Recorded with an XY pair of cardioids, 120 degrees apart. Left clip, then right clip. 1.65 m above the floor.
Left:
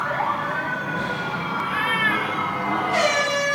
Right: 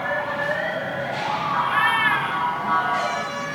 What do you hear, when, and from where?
1.6 s a cat meowing: 20° right, 3.5 m; by 3.3 s 5° left, 2.5 m